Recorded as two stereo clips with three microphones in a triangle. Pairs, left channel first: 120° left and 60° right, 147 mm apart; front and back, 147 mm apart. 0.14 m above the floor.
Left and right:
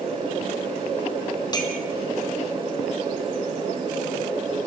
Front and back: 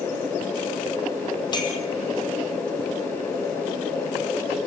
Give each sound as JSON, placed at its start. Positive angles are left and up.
{"t": 1.5, "sound": "a clink", "azimuth_deg": 60, "distance_m": 2.5}